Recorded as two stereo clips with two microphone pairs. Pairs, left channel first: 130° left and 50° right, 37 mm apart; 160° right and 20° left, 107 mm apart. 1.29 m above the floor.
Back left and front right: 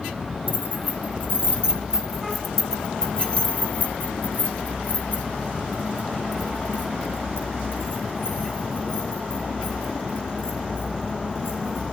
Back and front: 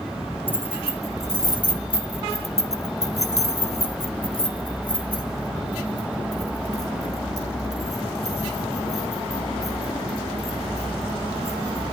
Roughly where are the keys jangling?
Right.